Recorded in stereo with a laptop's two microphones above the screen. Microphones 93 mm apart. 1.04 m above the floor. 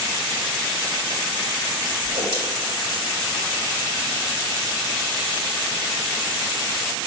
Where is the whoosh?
80° right, 2.5 m.